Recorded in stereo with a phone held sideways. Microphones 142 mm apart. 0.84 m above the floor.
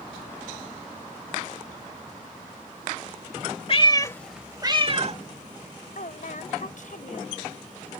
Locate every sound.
3.7 s a cat meowing: 40° left (ahead or behind); by 5.2 s 55° right (ahead or behind)
6.0 s a woman speaking: 65° left (ahead or behind)